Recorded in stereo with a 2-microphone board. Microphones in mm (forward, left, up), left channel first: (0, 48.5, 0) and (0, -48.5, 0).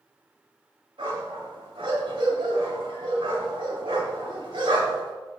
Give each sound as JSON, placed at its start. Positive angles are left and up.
{"t": 1.0, "sound": "a dog barking", "side_deg": -65, "distance_m": 3.0}